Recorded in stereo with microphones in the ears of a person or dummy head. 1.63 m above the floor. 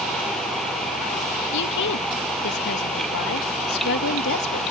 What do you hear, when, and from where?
1.5 s a woman speaking: 60° left (ahead or behind)